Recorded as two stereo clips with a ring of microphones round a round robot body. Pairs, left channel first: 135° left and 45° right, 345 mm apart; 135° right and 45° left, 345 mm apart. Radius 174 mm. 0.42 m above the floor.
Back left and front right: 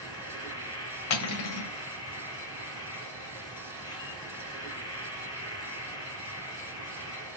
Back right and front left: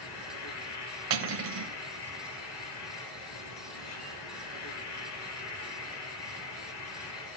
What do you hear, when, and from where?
0.0 s an insect: 145° right, 4 m
1.1 s cutlery clinking: 95° left, 1.4 m